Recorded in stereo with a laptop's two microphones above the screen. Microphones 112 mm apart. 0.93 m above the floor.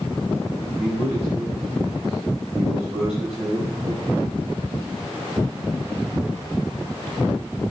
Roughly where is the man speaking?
Right.